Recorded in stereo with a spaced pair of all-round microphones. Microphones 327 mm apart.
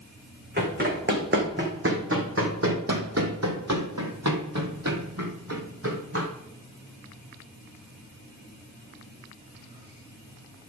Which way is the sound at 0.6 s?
30° right (ahead or behind).